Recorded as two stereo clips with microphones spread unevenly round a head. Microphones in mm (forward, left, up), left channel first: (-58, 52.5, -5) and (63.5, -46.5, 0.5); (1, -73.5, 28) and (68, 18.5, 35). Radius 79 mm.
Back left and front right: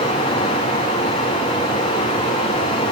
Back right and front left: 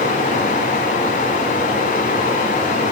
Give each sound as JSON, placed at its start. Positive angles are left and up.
{"t": 0.0, "sound": "running water", "azimuth_deg": -155, "distance_m": 9.5}